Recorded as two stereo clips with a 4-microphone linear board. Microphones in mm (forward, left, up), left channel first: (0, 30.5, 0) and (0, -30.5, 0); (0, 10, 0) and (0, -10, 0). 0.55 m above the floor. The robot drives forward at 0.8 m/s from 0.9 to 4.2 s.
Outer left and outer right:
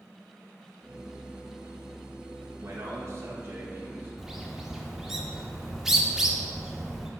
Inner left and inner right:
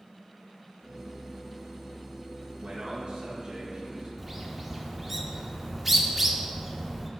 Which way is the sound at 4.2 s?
5° right (ahead or behind).